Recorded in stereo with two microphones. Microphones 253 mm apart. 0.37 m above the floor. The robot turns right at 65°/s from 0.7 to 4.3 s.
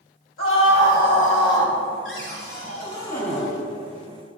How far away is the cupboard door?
About 1.7 m.